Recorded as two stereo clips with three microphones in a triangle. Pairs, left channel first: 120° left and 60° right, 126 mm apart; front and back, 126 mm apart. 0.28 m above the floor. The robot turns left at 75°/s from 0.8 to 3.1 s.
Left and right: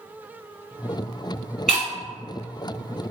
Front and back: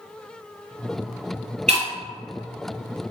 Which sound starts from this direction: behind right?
Breaking glass, at 1.7 s.